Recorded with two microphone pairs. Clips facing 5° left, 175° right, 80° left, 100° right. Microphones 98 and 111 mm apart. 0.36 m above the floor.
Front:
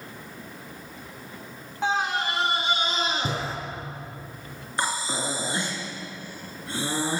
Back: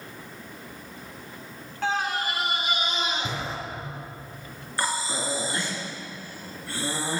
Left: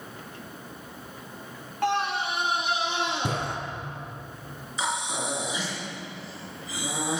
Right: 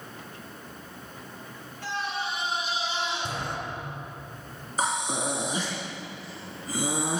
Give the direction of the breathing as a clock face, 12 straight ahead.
2 o'clock.